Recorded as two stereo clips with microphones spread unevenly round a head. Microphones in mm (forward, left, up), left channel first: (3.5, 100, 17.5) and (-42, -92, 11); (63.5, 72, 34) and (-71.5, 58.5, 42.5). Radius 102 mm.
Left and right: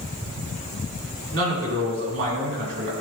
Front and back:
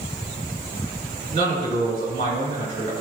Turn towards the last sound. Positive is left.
turn(degrees=-125)